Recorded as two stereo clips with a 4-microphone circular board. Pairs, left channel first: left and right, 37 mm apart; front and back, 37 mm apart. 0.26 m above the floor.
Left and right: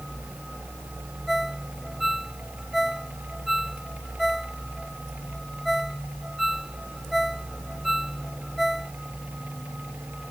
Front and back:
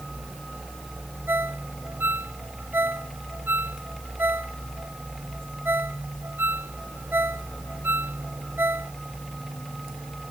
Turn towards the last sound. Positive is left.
turn(degrees=-175)